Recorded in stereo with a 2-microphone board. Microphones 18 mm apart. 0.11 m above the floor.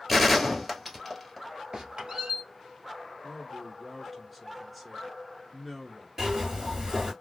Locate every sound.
0.1 s a gunshot: centre (ahead or behind), 1.1 m
1.7 s a squeak: 50° right (ahead or behind), 1.1 m
3.2 s a man speaking: 5° left (ahead or behind), 1.1 m
6.2 s a zipper: 25° right (ahead or behind), 2.5 m